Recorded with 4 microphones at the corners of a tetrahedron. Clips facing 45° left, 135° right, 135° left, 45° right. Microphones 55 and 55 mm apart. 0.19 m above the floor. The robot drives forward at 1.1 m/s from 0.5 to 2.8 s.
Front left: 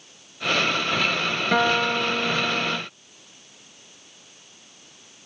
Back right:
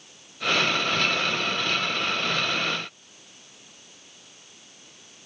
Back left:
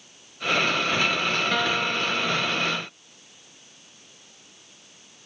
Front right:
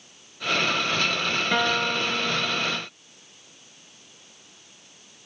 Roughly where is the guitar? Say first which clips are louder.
Front left 6 dB, front right 1 dB; ahead left.